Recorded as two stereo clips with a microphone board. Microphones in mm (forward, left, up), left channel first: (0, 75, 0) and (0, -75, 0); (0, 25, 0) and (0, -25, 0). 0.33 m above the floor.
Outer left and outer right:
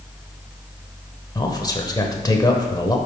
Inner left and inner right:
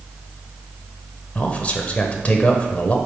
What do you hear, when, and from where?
1.4 s a man speaking: 25° left (ahead or behind), 1.0 m